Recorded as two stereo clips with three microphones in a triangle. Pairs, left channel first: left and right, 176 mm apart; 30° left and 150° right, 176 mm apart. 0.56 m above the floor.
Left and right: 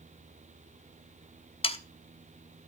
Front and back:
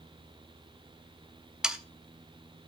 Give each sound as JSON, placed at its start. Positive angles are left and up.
{"t": 1.6, "sound": "sawing", "azimuth_deg": 125, "distance_m": 0.9}